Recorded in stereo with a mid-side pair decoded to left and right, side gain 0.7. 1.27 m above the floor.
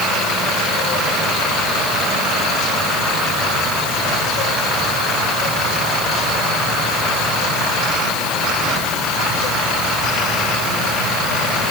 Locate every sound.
Only background noise.